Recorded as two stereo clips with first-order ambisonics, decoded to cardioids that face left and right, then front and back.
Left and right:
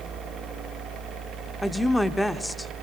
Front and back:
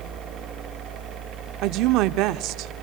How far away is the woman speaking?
About 1.0 m.